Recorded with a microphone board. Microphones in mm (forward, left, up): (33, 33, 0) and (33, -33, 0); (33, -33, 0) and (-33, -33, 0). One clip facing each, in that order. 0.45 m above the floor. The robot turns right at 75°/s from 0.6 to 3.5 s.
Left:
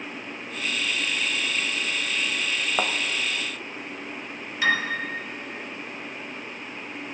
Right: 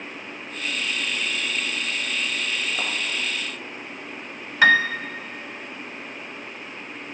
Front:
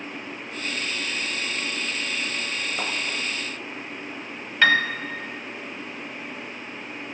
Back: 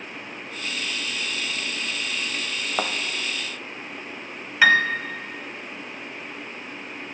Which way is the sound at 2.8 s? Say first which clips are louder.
Left 3 dB, back 6 dB; 135° left.